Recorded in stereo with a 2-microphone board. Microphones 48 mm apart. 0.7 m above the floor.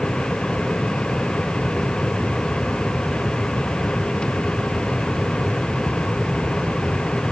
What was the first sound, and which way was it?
Only background noise.